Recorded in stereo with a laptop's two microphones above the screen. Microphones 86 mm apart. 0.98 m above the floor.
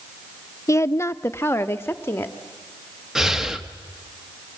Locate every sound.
0.7 s a woman speaking: 35° left (ahead or behind), 0.5 m; by 2.4 s 25° left (ahead or behind), 1.8 m
3.1 s breathing: 5° right (ahead or behind), 1.4 m